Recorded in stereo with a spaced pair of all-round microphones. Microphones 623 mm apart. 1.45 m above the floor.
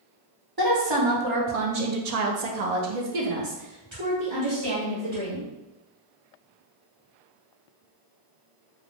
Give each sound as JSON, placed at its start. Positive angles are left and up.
{"t": 0.6, "sound": "a woman speaking", "side_deg": -35, "distance_m": 1.2}